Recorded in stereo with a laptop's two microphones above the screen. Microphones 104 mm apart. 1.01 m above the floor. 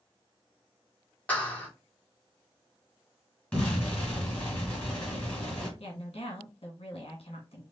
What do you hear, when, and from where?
1.3 s a clap: 15° left (ahead or behind), 1.4 m
3.5 s an explosion: 15° left (ahead or behind), 2 m
5.8 s a woman speaking: 65° left (ahead or behind), 1.9 m